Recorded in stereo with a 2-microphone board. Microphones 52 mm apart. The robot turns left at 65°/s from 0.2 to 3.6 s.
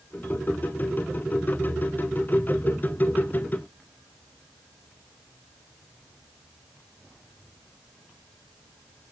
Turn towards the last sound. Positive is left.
No sound to turn to.